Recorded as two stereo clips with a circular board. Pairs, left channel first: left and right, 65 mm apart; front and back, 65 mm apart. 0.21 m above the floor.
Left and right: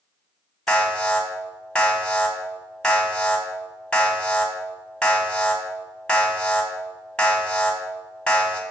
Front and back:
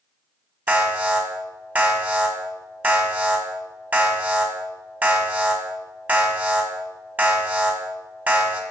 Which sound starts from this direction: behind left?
An alarm, at 0.7 s.